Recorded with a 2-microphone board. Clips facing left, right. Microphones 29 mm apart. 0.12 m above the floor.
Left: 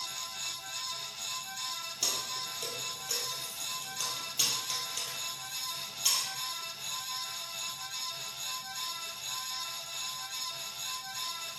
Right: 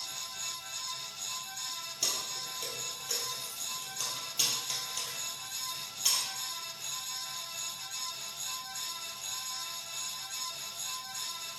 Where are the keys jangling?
5° left (ahead or behind), 2.0 m.